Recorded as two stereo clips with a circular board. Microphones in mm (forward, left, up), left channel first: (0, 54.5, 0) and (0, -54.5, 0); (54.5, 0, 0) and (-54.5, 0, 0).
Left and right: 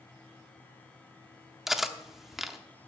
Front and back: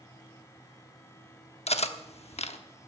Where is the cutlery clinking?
5° right, 0.9 m.